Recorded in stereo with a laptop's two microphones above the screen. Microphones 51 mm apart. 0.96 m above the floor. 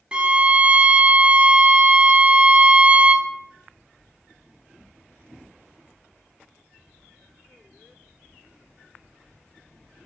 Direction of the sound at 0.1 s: 20° right (ahead or behind).